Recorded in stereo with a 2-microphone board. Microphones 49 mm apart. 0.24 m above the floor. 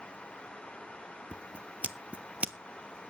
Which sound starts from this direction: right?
Scissors, at 1.3 s.